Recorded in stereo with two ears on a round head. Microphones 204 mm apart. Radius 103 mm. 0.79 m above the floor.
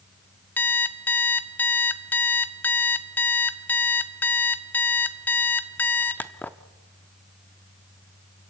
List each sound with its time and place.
0.6 s an alarm clock: 10° left (ahead or behind), 0.5 m